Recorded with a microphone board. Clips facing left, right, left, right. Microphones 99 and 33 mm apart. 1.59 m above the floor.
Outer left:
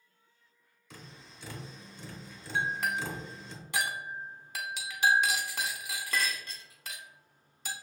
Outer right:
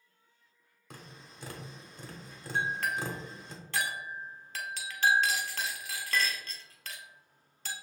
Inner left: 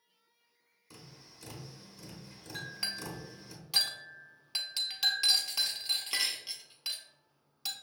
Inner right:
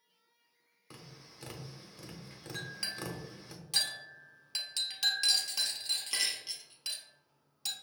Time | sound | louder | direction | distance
0.9 | tapping | outer right 1 dB, inner right 1 dB | 50° right (ahead or behind) | 0.9 m
2.5 | a clink | even, inner left 1 dB | 15° left (ahead or behind) | 0.7 m